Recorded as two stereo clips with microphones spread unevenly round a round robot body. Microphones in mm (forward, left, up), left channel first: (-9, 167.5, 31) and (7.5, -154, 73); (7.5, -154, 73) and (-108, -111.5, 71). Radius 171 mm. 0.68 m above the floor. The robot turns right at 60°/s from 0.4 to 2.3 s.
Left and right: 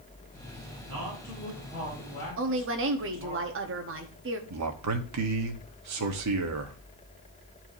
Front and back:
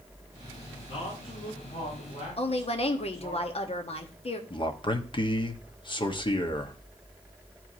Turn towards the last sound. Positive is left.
turn(degrees=-60)